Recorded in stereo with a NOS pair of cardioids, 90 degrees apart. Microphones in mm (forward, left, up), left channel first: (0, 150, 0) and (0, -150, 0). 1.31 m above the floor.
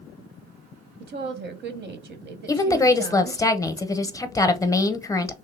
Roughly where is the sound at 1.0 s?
Ahead right.